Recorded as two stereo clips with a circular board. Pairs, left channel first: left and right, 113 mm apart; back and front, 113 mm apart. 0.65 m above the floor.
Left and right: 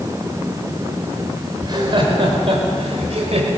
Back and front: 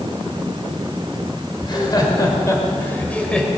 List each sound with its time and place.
1.6 s laughter: 135° right, 2.5 m; by 3.5 s 95° right, 2.5 m